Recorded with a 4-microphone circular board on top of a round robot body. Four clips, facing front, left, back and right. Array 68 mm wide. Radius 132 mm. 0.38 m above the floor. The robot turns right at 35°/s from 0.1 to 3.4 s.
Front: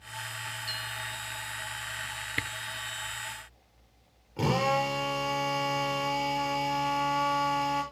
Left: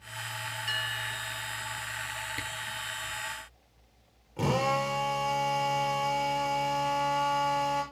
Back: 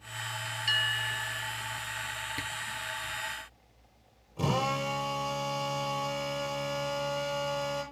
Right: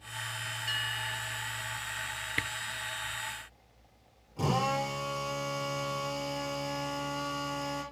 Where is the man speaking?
I don't hear a man speaking.